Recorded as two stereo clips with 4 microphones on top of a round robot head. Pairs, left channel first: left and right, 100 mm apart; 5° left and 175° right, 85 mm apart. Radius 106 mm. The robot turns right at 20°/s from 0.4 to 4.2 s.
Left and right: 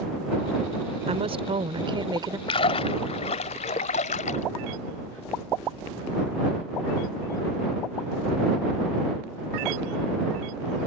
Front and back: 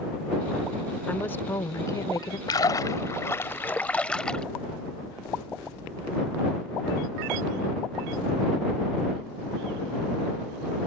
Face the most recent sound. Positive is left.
turn(degrees=85)